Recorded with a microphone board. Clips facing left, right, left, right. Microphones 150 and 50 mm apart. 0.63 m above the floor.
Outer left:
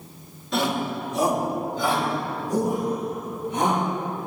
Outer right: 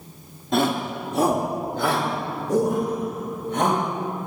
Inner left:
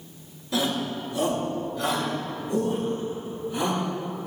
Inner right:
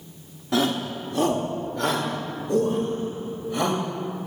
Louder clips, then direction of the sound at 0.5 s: Outer right 3 dB, inner right 3 dB; 50° right (ahead or behind).